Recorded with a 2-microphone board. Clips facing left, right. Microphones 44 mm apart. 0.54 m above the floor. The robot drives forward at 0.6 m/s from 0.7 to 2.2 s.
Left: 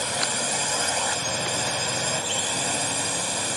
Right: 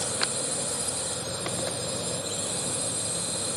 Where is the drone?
70° left (ahead or behind); by 3.6 s 65° left (ahead or behind).